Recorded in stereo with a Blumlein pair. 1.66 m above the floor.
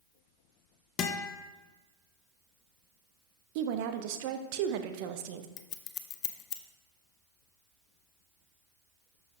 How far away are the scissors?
About 0.6 m.